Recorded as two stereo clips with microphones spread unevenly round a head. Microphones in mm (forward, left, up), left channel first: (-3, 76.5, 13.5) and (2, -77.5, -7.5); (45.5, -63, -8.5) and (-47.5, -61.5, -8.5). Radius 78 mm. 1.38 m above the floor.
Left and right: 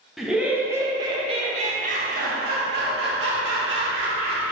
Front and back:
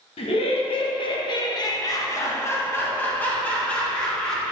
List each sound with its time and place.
0.2 s laughter: straight ahead, 1.2 m; by 4.5 s 85° right, 2 m